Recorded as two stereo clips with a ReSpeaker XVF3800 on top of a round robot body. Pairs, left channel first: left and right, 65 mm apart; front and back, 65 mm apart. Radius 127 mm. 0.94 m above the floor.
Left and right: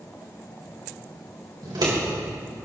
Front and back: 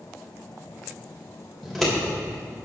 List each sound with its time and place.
1.6 s scissors: 90° right, 3.5 m